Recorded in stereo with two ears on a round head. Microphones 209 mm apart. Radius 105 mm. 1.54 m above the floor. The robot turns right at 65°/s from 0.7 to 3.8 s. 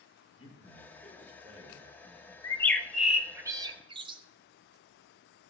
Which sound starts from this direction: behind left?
A man speaking, at 0.4 s.